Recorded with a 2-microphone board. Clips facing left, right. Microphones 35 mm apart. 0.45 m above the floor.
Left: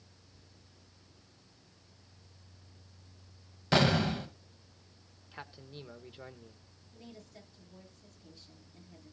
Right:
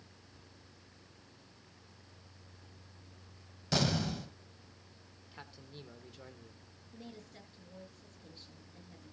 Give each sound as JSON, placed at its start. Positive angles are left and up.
{"t": 3.7, "sound": "an explosion", "side_deg": 35, "distance_m": 0.9}
{"t": 5.3, "sound": "a man speaking", "side_deg": 20, "distance_m": 1.0}
{"t": 6.9, "sound": "a woman speaking", "side_deg": -45, "distance_m": 8.5}